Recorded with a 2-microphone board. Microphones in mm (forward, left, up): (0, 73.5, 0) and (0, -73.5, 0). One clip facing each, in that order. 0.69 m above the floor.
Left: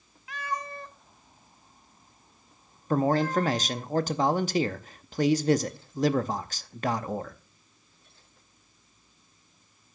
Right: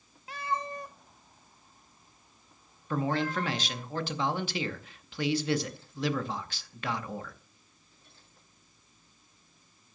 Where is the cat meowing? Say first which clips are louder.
Right 1 dB; 35° right (ahead or behind), 0.6 m; by 3.9 s 45° left (ahead or behind), 1.7 m.